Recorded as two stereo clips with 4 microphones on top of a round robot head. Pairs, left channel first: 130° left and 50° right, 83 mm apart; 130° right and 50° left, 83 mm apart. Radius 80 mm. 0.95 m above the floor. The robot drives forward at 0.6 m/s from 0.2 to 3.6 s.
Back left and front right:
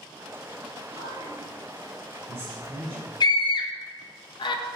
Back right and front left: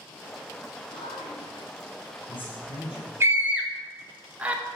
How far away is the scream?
About 0.9 m.